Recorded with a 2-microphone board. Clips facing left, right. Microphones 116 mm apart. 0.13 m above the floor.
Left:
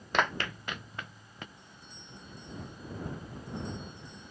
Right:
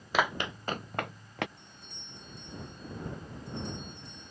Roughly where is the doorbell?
Right.